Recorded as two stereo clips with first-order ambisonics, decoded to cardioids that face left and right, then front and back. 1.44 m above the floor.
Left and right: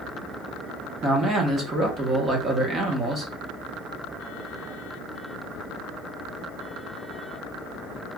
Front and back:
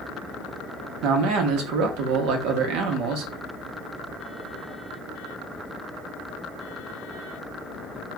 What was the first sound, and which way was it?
A man speaking, 160° right.